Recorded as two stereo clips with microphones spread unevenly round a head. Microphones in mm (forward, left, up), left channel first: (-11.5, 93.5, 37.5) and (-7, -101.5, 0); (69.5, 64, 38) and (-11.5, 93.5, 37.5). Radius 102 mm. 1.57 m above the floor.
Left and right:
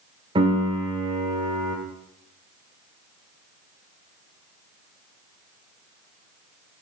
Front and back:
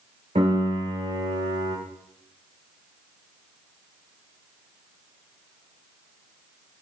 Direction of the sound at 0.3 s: 160° right.